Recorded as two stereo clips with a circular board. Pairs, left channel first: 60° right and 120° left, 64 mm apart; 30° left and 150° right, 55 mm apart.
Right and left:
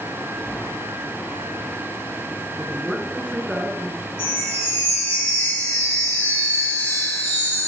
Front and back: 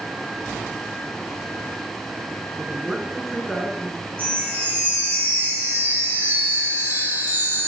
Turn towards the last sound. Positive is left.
turn(degrees=-100)